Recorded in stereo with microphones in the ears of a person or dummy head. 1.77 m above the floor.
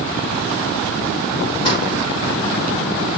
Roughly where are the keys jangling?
Left.